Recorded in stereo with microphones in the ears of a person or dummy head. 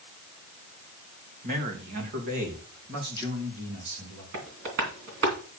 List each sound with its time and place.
1.4 s a man speaking: 45° right (ahead or behind), 2.5 m; by 4.2 s 65° right (ahead or behind), 4.5 m
4.3 s tapping: 50° right (ahead or behind), 2.5 m